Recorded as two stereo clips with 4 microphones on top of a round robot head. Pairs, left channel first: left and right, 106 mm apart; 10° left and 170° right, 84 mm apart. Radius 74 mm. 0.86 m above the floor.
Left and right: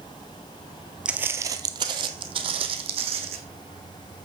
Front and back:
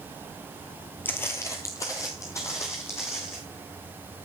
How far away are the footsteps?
About 0.8 m.